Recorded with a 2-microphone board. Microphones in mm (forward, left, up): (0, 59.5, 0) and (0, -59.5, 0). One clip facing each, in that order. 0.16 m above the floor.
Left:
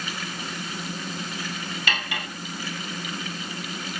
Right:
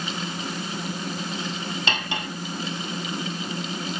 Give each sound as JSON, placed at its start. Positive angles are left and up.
{"t": 1.9, "sound": "cutlery clinking", "side_deg": -25, "distance_m": 2.0}